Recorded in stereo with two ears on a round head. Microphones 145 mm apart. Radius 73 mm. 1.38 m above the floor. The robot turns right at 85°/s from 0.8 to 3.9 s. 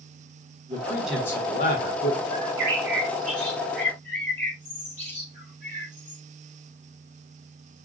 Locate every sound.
0.7 s a man speaking: 25° right, 1.5 m; by 2.2 s 95° left, 1.5 m
2.3 s a bird: 55° right (ahead or behind), 3.5 m; by 6.2 s 10° left (ahead or behind), 3.5 m